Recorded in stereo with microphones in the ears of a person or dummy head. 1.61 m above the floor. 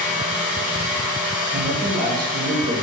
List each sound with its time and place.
0.0 s a fan: 10° right (ahead or behind), 1.4 m
1.5 s a man speaking: 60° right (ahead or behind), 1.7 m